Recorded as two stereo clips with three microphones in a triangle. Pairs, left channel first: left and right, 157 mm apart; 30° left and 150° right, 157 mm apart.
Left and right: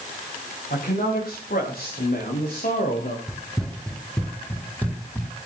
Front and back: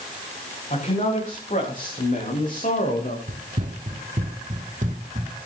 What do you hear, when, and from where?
0.7 s a man speaking: 70° left, 9.5 m; by 3.2 s 60° left, 7 m
3.3 s running footsteps: straight behind, 1.7 m; by 5.3 s 165° left, 3 m